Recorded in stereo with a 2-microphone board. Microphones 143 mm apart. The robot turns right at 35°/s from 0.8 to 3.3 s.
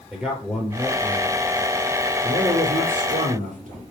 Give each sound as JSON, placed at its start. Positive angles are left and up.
{"t": 0.1, "sound": "a man speaking", "azimuth_deg": -170, "distance_m": 4.5}